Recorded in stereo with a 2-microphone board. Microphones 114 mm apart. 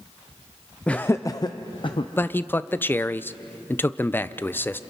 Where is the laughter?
10° left (ahead or behind), 0.5 m; by 2.1 s 50° left (ahead or behind), 0.9 m.